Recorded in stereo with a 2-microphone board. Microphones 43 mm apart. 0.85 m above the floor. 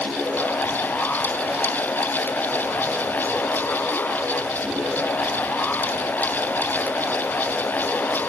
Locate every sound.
Only background noise.